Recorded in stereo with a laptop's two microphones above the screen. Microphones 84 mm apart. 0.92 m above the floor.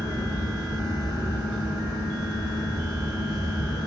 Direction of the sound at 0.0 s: 55° right (ahead or behind).